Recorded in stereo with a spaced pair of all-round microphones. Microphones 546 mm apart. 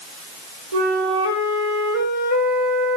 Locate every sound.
0.7 s a flute: 85° right, 4.5 m